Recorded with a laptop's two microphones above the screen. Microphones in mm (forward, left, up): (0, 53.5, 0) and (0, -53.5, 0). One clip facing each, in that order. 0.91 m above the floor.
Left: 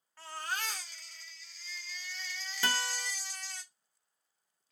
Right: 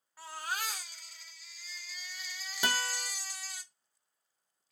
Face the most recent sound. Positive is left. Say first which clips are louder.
# right 1 dB
turn(degrees=-15)  # may be behind; listen again after turning